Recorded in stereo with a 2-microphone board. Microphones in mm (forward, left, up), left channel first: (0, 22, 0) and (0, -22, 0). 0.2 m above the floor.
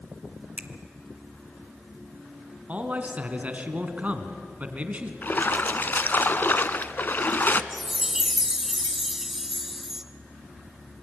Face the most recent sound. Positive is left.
turn(degrees=-5)  # may be behind; listen again after turning